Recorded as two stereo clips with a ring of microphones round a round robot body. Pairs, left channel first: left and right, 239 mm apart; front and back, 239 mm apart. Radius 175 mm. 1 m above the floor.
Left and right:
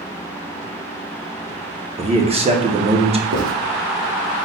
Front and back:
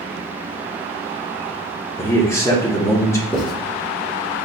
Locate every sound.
2.0 s a man speaking: 65° right, 0.8 m
3.3 s writing: 90° right, 1.5 m